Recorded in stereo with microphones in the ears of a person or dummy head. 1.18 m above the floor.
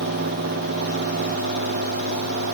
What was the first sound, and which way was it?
Only background noise.